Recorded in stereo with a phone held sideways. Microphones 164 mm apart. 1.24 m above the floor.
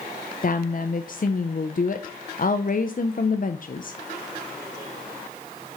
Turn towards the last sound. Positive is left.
turn(degrees=55)  # may be behind; listen again after turning